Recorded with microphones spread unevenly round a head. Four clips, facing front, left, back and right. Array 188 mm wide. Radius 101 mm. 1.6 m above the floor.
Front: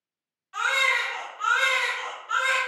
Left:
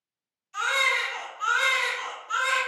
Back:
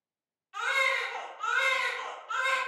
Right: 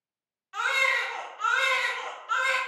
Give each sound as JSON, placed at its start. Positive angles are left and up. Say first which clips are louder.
{"t": 0.5, "sound": "a baby crying", "louder": "left 1 dB, front 4 dB", "azimuth_deg": -85, "distance_m": 0.6}